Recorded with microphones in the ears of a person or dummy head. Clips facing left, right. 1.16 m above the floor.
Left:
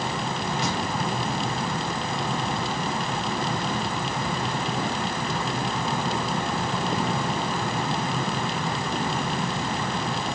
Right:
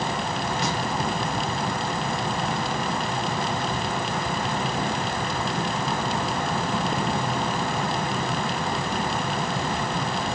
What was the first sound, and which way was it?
Only background noise.